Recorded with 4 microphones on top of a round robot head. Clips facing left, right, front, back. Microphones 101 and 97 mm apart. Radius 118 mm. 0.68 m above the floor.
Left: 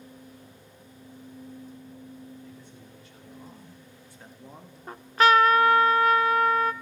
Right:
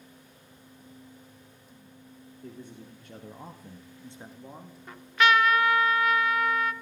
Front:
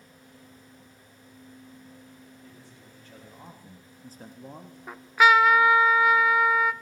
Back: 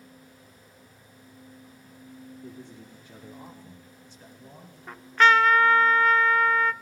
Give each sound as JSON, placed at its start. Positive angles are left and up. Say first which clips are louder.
{"t": 2.4, "sound": "a man speaking", "louder": "right 3 dB, back 7 dB", "azimuth_deg": -120, "distance_m": 2.5}
{"t": 4.9, "sound": "a trumpet", "louder": "left 3 dB, even", "azimuth_deg": 80, "distance_m": 0.9}